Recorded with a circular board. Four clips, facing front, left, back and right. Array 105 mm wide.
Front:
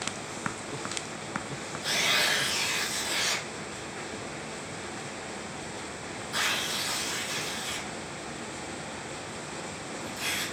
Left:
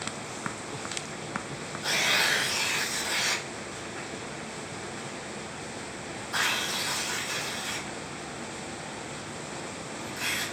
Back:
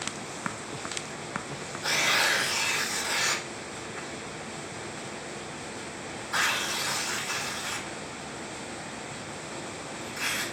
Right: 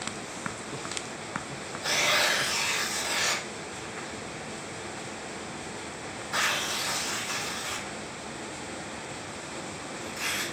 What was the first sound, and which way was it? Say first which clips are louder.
Tearing paper: right 1 dB, back 3 dB; 140° right.